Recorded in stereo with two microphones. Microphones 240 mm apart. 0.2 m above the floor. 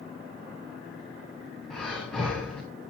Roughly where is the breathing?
Centre.